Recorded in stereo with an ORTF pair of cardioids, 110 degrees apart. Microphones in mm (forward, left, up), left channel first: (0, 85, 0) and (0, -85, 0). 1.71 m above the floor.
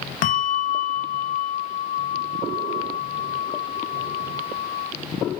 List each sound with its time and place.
0.2 s a bell: 55° left, 0.6 m